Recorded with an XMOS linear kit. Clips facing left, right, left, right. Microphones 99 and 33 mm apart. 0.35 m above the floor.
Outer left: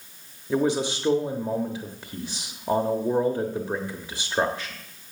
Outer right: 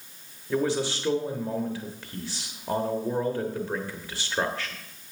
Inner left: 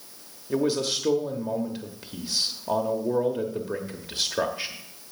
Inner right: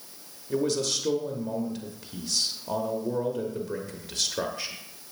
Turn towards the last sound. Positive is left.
turn(degrees=20)  # may be behind; listen again after turning